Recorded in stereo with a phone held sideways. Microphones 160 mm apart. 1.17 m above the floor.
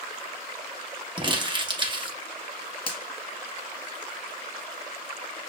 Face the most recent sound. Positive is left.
turn(degrees=30)  # may be behind; listen again after turning